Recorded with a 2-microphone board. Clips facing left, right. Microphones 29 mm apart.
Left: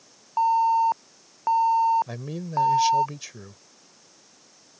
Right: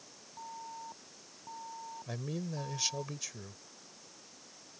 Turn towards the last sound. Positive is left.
turn(degrees=25)  # may be behind; listen again after turning